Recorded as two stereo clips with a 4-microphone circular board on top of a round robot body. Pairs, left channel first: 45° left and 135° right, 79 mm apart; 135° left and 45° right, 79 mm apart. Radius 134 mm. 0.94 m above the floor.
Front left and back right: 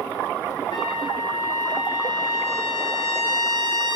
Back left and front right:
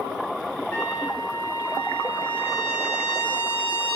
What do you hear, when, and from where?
0.7 s a trumpet: 75° left, 4.5 m